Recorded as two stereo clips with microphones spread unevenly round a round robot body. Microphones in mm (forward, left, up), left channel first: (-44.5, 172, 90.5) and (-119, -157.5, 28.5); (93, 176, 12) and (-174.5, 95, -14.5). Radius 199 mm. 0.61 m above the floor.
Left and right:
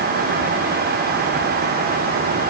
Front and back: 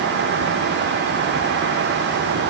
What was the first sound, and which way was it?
Only background noise.